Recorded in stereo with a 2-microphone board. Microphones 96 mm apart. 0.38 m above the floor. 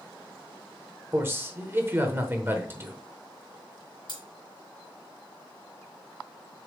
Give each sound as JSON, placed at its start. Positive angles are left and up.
{"t": 1.1, "sound": "a man speaking", "side_deg": -25, "distance_m": 0.9}
{"t": 4.1, "sound": "cutlery clinking", "side_deg": 55, "distance_m": 3.5}